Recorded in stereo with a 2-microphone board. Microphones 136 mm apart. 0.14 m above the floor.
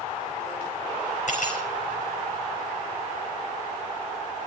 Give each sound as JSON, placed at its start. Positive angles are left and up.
{"t": 1.3, "sound": "cutlery clinking", "side_deg": 60, "distance_m": 4.5}